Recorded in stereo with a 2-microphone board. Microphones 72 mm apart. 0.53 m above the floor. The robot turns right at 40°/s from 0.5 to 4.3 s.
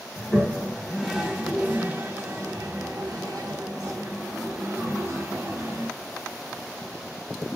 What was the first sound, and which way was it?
A toilet flushing, 20° left (ahead or behind).